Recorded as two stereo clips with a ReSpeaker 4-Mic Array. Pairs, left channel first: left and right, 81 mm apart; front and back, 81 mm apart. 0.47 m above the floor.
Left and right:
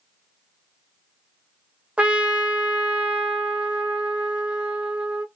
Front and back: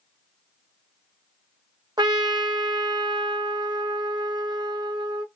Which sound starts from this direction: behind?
A trumpet, at 2.0 s.